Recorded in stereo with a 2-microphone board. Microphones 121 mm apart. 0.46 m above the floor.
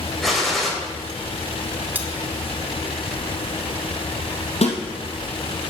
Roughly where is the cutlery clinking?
Centre.